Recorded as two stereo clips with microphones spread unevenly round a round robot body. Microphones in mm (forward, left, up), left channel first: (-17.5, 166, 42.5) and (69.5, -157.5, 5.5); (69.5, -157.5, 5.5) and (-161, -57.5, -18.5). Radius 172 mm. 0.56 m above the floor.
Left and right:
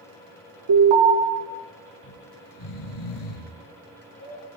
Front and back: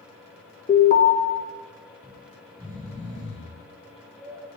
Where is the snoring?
75° left, 2 m.